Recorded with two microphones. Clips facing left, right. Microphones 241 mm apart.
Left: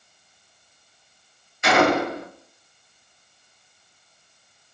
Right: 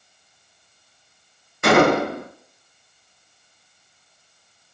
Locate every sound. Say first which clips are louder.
1.6 s a gunshot: right 4 dB; 55° right (ahead or behind), 0.6 m